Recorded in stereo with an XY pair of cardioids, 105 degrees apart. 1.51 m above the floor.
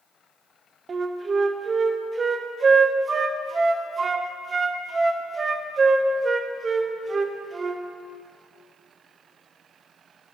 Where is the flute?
35° right, 0.7 m.